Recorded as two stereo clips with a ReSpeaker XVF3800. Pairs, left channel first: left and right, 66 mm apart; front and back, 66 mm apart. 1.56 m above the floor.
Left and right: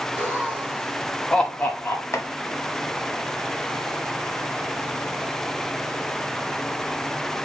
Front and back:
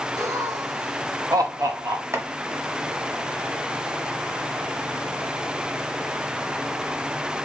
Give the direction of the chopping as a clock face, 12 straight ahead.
8 o'clock.